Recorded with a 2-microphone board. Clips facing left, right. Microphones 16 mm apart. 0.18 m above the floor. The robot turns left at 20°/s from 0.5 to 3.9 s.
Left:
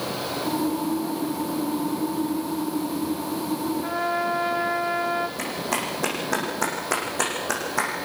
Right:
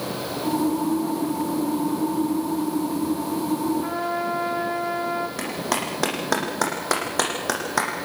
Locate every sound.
3.8 s a trumpet: 5° right (ahead or behind), 4 m; by 5.3 s 10° right (ahead or behind), 4 m
5.4 s a clap: 75° right (ahead or behind), 7.5 m